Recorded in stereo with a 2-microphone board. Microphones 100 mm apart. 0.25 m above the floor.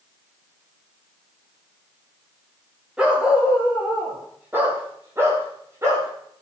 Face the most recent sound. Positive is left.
turn(degrees=-30)  # may be behind; listen again after turning